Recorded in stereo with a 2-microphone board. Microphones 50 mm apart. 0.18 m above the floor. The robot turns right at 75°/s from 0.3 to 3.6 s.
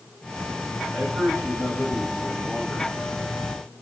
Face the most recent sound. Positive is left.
turn(degrees=115)